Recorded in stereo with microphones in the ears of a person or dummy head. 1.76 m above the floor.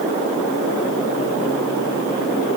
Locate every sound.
Only background noise.